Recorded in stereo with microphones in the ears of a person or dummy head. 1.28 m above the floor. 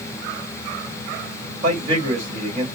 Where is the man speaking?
40° right (ahead or behind), 2 m.